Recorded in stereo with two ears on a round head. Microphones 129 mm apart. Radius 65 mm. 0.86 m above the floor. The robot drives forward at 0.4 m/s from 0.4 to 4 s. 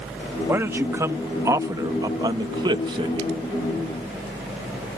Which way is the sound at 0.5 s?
15° right (ahead or behind).